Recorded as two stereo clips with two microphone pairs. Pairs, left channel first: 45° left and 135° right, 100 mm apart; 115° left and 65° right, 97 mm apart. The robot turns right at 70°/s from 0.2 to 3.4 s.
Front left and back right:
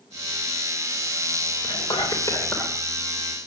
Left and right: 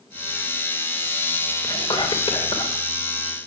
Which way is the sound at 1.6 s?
55° left.